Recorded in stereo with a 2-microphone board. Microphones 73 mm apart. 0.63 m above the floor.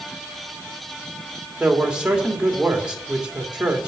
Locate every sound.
1.6 s a man speaking: 15° right (ahead or behind), 2 m